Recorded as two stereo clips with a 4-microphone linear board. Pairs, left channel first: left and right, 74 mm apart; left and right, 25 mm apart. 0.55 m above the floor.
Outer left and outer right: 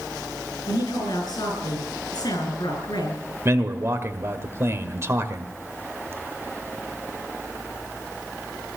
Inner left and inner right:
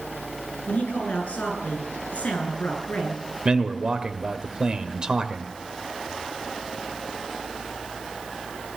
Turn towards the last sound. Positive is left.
turn(degrees=-35)  # may be behind; listen again after turning